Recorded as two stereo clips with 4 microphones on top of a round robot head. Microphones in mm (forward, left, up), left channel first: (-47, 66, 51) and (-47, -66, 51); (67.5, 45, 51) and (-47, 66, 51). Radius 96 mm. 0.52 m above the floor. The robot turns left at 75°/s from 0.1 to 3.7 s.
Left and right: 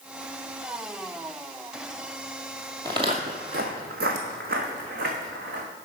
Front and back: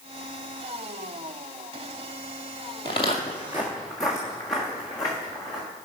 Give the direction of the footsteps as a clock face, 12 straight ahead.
1 o'clock.